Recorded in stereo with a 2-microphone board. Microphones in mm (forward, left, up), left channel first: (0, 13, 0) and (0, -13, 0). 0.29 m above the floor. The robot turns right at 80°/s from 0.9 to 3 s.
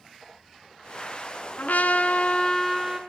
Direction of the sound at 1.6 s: 80° left.